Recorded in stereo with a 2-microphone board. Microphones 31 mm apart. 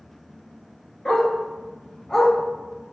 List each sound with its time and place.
1.1 s a dog barking: 15° left (ahead or behind), 1.0 m; by 2.3 s 20° left (ahead or behind), 0.5 m